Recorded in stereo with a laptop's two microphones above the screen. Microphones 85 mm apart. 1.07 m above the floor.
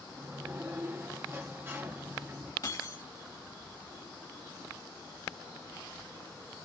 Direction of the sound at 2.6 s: 45° left (ahead or behind).